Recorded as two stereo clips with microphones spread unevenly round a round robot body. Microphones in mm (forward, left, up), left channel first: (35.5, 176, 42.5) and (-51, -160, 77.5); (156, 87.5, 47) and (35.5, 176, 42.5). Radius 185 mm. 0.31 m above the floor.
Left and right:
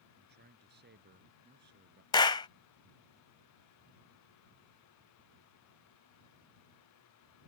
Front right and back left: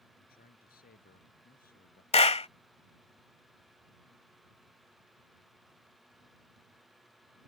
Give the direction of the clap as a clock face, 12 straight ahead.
12 o'clock.